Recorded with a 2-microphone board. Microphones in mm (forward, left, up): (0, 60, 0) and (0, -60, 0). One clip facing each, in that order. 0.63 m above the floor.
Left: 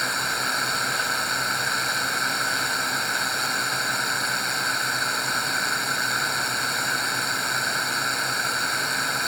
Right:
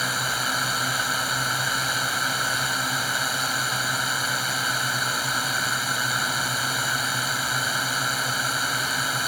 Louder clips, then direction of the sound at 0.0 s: Even; 5° right (ahead or behind).